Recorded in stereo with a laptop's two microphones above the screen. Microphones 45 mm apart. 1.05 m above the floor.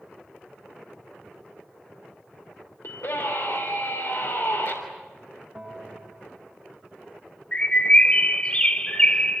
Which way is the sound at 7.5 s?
25° left (ahead or behind).